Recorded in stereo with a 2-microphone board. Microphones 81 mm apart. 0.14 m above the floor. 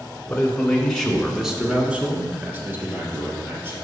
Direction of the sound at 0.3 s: 20° left (ahead or behind).